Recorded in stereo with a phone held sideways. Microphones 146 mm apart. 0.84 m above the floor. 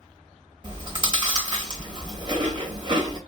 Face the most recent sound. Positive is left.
turn(degrees=-30)  # may be behind; listen again after turning